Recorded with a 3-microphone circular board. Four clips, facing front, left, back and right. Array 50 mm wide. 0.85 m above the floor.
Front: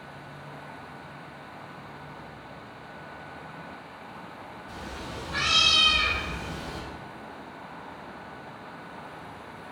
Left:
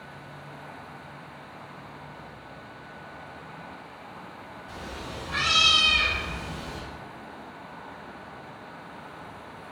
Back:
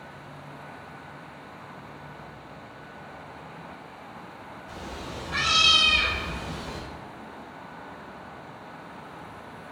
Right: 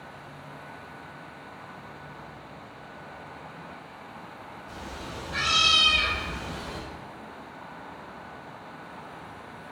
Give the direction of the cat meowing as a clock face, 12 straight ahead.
8 o'clock.